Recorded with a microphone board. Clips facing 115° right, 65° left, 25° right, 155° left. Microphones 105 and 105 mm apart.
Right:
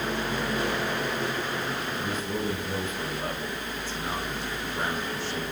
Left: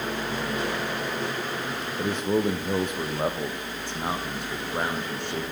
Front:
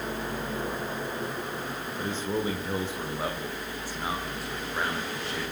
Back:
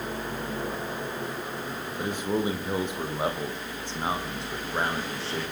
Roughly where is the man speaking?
Left.